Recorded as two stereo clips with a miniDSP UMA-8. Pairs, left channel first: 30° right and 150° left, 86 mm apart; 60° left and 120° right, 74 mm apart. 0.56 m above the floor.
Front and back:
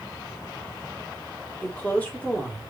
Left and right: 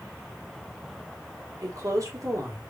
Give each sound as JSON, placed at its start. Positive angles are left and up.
{"t": 1.6, "sound": "a woman speaking", "azimuth_deg": -100, "distance_m": 1.6}